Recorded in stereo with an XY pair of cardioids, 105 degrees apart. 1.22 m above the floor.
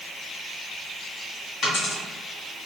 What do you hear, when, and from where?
1.6 s a dropped coin: 65° left, 1.9 m